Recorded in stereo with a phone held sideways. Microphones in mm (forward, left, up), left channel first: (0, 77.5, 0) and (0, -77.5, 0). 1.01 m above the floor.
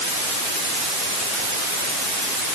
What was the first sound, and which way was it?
Only background noise.